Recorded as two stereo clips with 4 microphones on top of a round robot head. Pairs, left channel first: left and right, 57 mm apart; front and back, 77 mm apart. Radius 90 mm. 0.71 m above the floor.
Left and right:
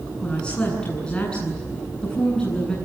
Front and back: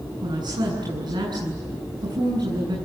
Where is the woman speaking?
160° left, 8.5 m.